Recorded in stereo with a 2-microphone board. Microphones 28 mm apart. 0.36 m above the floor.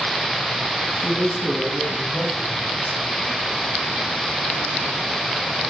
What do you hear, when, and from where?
0.9 s a man speaking: 40° left (ahead or behind), 4 m; by 3.2 s 35° left (ahead or behind), 1.4 m